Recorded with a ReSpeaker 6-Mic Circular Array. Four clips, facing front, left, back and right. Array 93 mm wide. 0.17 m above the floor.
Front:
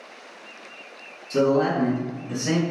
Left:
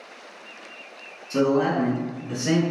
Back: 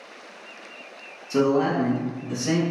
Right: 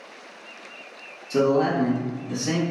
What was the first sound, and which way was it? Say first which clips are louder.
A man speaking: right 1 dB, front 1 dB; 170° left.